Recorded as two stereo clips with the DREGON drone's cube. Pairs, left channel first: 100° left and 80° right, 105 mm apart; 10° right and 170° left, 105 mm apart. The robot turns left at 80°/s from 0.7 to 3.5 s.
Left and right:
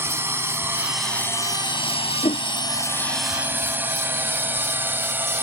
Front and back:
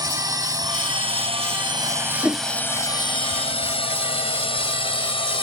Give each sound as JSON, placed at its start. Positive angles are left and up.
{"t": 0.0, "sound": "a drone", "azimuth_deg": -145}
{"t": 2.2, "sound": "a whoosh", "azimuth_deg": 95}